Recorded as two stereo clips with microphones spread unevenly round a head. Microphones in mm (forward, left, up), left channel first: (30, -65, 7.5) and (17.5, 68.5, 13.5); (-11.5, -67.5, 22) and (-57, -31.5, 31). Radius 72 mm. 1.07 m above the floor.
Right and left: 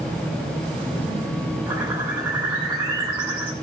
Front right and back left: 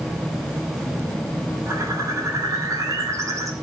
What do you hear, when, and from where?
1.7 s a bird: straight behind, 5.5 m